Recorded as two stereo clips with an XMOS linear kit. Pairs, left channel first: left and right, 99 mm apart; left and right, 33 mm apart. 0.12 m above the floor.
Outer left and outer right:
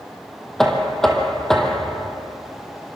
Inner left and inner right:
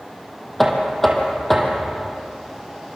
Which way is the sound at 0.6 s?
5° left (ahead or behind).